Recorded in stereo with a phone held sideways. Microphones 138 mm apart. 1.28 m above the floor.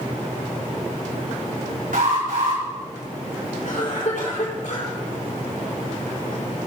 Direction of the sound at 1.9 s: 75° right (ahead or behind).